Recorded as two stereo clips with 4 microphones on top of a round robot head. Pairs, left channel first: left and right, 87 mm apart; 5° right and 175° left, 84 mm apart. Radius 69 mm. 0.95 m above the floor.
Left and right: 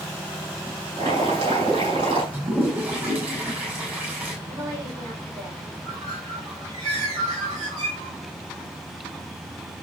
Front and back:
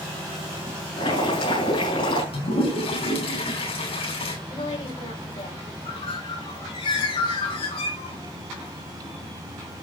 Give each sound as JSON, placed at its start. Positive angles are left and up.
{"t": 1.0, "sound": "boiling", "azimuth_deg": -45, "distance_m": 7.0}
{"t": 2.3, "sound": "a toilet flushing", "azimuth_deg": -15, "distance_m": 7.5}
{"t": 4.5, "sound": "a woman speaking", "azimuth_deg": -30, "distance_m": 8.5}
{"t": 5.8, "sound": "a bird", "azimuth_deg": -35, "distance_m": 7.0}